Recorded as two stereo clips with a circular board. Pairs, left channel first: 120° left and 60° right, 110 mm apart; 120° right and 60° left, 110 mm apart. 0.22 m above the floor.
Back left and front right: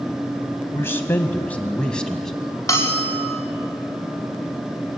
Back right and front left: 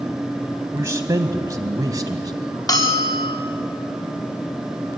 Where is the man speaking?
85° left, 1.7 m; by 2.3 s 40° left, 2.0 m.